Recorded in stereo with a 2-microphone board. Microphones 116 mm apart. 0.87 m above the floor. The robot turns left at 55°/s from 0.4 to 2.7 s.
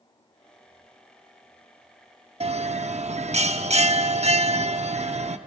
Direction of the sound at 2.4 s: 60° right (ahead or behind).